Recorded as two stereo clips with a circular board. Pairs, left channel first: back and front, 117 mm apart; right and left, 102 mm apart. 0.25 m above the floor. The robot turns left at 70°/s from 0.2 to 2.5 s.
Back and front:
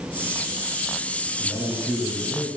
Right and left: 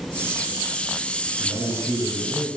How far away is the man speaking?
About 3 m.